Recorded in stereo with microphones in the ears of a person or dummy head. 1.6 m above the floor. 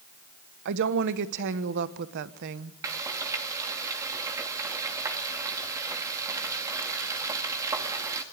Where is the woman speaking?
60° right (ahead or behind), 1.2 m.